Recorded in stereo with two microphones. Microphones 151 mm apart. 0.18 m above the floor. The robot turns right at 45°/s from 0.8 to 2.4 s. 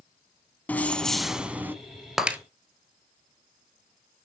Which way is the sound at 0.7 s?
160° left.